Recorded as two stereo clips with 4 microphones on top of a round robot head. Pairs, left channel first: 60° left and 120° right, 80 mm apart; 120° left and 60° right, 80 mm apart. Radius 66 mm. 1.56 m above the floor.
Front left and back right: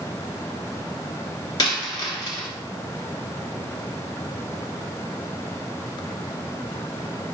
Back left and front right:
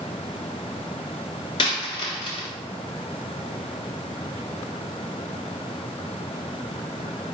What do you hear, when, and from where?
1.6 s a dropped coin: 95° left, 1.1 m